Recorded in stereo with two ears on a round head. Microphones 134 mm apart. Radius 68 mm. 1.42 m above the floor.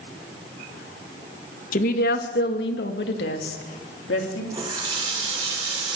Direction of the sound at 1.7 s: 50° left (ahead or behind).